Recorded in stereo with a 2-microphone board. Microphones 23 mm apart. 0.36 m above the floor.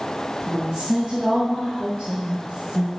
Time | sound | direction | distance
0.5 | a woman speaking | 25° right (ahead or behind) | 3 m